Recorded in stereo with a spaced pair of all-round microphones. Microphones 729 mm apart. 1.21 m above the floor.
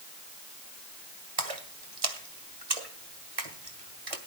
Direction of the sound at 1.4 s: 50° right (ahead or behind).